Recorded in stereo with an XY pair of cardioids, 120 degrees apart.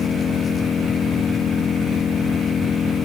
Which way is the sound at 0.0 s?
35° left.